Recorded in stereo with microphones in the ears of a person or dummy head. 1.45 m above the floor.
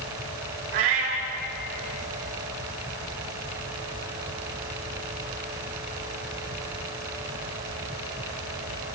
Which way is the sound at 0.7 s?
45° right (ahead or behind).